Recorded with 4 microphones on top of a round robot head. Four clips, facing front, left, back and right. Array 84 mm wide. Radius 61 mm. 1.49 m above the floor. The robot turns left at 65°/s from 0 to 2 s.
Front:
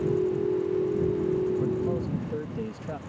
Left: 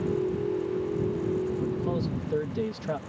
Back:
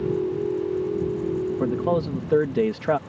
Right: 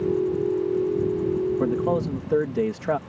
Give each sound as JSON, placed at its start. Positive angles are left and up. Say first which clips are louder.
{"t": 1.6, "sound": "a man speaking", "louder": "right 6 dB, back 5 dB", "azimuth_deg": -130}